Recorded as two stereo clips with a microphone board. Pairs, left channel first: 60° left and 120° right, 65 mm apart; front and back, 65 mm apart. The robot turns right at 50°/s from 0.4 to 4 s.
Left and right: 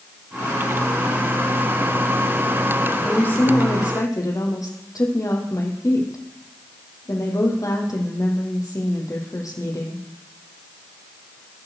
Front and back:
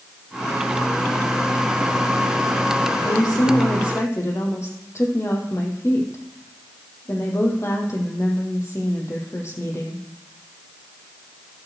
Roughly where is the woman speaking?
Ahead.